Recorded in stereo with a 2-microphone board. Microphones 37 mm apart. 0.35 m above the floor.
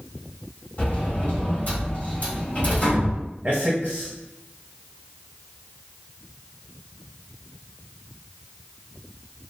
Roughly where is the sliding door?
Left.